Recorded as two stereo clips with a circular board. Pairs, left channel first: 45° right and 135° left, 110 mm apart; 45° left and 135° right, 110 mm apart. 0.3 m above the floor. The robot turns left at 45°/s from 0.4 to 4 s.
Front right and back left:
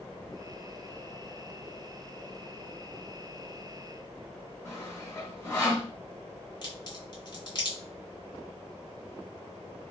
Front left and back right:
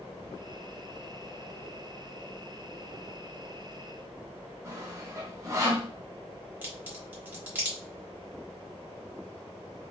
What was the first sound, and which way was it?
Sawing, 95° right.